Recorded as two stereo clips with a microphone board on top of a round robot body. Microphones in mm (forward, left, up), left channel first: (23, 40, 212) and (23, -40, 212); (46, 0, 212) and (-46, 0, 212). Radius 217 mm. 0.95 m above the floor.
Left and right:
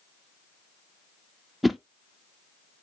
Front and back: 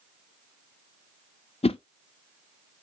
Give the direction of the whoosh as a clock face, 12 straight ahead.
12 o'clock.